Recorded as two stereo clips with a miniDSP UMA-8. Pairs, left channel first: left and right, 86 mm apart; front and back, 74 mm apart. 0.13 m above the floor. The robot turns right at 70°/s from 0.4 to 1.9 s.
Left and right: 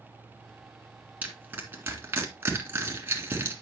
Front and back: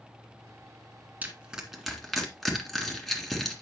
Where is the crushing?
140° right, 1.8 m; by 3.6 s 90° right, 1.8 m.